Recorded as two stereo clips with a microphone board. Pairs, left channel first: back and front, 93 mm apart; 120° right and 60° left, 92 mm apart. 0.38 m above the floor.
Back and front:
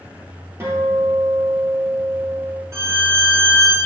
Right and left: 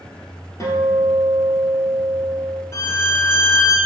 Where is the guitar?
65° right, 1.8 m.